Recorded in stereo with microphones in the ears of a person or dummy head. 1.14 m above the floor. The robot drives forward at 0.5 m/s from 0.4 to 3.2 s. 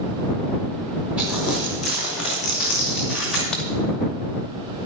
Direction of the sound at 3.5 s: 5° right (ahead or behind).